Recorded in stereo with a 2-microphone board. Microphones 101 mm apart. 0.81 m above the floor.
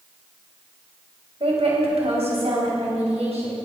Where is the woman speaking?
65° right (ahead or behind), 3.5 m; by 3.6 s 85° right, 5.5 m.